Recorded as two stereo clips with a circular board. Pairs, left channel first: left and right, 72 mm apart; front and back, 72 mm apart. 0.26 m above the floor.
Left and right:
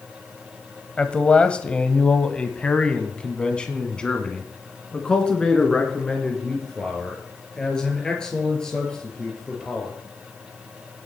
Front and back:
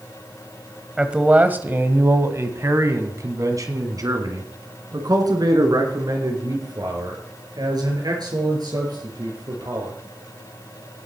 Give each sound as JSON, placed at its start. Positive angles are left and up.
{"t": 1.0, "sound": "a man speaking", "azimuth_deg": 130, "distance_m": 1.0}